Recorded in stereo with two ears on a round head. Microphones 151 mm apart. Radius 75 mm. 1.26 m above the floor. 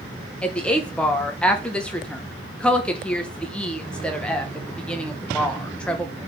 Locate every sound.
0.4 s a woman speaking: 5° left (ahead or behind), 1.0 m